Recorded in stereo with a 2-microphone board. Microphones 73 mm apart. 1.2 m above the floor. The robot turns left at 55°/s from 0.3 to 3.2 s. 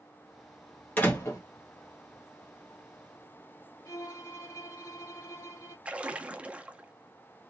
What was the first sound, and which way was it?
A door slam, 20° left (ahead or behind).